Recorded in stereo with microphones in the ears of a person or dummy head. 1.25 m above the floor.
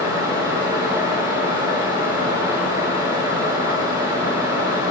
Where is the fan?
20° right (ahead or behind), 1.4 m.